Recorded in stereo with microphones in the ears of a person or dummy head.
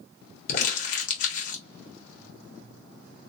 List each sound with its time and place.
0.5 s crumpling: 45° left (ahead or behind), 1.6 m